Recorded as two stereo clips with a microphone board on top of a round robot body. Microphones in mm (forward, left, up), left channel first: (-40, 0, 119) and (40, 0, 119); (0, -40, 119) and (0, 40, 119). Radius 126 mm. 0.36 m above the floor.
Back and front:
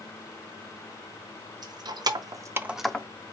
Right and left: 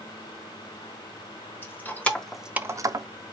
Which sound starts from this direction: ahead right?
Keys jangling, at 1.6 s.